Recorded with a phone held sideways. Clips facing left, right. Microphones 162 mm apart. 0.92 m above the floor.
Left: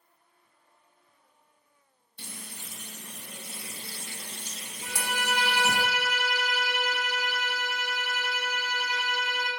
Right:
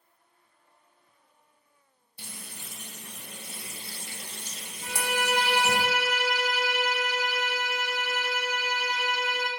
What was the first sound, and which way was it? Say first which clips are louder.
Frying: left 1 dB; 10° right (ahead or behind).